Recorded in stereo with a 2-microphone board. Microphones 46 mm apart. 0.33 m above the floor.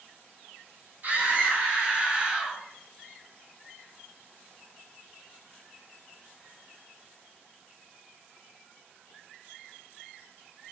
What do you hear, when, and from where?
1.0 s a scream: 40° right (ahead or behind), 2 m; by 2.6 s 20° right (ahead or behind), 1.6 m